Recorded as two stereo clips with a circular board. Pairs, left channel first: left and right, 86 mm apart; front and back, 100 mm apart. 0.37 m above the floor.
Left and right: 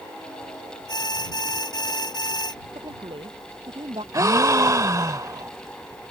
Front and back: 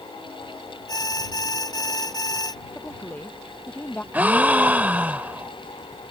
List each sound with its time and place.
0.9 s an alarm: 55° left
2.8 s a woman speaking: 75° right
4.1 s a gasp: 110° right